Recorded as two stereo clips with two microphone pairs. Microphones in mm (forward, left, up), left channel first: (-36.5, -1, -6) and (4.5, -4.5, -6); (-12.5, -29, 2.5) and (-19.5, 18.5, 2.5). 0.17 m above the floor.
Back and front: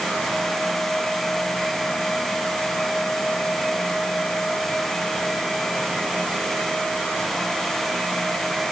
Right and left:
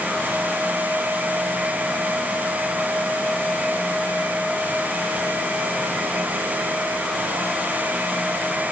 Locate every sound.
Only background noise.